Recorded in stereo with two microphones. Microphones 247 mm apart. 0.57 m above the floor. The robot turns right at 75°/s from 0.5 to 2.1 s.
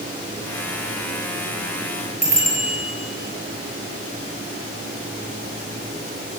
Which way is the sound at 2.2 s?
80° left.